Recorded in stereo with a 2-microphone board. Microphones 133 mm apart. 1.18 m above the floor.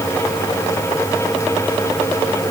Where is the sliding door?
I don't hear a sliding door.